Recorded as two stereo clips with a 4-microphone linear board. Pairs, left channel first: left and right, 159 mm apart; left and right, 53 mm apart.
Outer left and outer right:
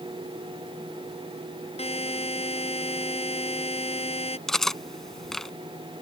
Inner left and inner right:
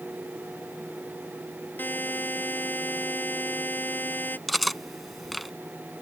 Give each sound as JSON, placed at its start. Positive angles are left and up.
{"t": 1.8, "sound": "a buzzer", "side_deg": 40}
{"t": 4.5, "sound": "cutlery clinking", "side_deg": 0}